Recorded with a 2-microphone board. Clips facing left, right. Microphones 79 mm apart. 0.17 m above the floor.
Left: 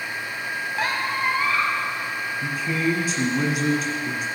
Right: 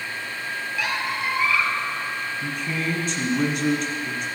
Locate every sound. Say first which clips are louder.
0.8 s a squeak: left 2 dB; 40° left (ahead or behind), 0.8 m
2.4 s a man speaking: left 6 dB; 5° left (ahead or behind), 1.4 m